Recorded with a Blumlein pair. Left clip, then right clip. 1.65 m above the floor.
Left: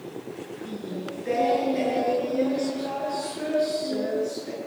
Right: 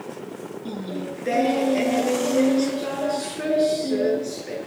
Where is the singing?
20° right, 7 m.